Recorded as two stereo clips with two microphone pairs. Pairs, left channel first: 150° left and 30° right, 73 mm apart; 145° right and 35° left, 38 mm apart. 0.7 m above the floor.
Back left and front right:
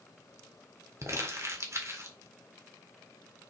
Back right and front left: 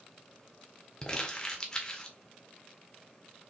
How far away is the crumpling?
About 1.8 m.